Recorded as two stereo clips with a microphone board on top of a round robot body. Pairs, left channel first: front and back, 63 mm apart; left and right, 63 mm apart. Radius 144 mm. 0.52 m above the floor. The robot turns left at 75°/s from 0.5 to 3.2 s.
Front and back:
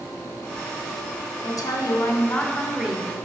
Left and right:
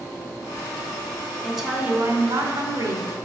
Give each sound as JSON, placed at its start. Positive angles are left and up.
{"t": 1.4, "sound": "a woman speaking", "azimuth_deg": 5, "distance_m": 2.5}